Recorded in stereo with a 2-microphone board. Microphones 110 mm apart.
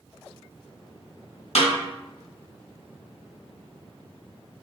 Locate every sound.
1.6 s a snare drum: 80° left, 1.8 m